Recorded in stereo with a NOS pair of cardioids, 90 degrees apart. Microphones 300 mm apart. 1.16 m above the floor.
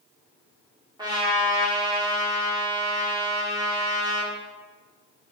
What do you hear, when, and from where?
1.0 s a trumpet: 15° right, 1.4 m